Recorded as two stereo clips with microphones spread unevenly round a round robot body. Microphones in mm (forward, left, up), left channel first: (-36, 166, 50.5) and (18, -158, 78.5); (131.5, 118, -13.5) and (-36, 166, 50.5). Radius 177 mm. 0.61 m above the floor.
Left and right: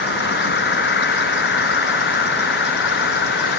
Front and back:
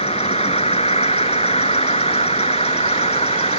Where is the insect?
40° left.